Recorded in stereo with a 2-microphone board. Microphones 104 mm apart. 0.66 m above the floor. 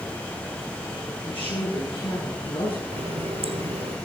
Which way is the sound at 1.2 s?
60° left (ahead or behind).